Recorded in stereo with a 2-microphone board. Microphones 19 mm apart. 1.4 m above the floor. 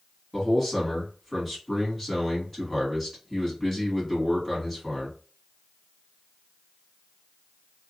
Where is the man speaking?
10° left (ahead or behind), 1.9 m.